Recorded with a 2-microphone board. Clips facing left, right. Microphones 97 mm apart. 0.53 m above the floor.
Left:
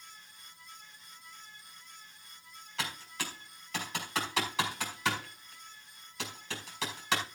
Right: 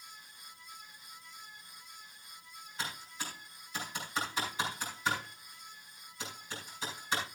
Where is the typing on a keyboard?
75° left (ahead or behind), 5 m.